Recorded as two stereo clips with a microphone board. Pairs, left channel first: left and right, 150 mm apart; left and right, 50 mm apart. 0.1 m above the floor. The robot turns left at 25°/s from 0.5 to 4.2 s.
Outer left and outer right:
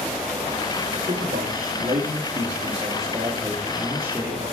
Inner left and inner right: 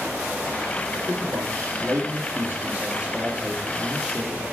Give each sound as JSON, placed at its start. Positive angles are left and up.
{"t": 0.9, "sound": "a man speaking", "azimuth_deg": -85, "distance_m": 3.0}